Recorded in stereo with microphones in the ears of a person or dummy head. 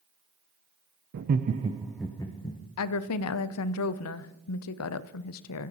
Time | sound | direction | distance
1.1 | laughter | 55° right (ahead or behind) | 0.5 m
2.8 | a woman speaking | 80° left | 0.5 m